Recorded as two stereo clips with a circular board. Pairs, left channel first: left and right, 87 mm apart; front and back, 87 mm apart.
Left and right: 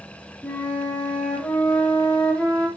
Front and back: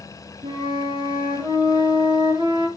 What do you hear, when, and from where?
0.4 s a flute: 165° left, 6.5 m